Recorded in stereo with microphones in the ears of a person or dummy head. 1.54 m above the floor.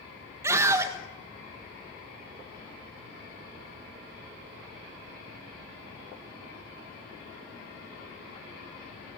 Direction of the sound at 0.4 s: 15° right (ahead or behind).